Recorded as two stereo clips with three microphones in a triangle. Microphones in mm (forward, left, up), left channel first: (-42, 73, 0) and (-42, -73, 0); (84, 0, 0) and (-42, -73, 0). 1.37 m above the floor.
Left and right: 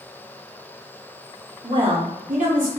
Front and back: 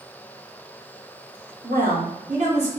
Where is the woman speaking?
150° right, 1.3 m; by 2.7 s 105° right, 1.5 m.